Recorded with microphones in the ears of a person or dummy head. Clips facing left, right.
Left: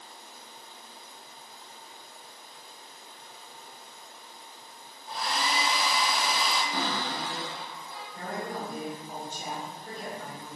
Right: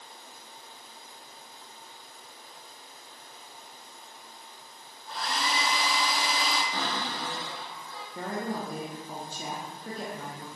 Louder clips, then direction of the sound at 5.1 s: Left 1 dB; 30° left (ahead or behind).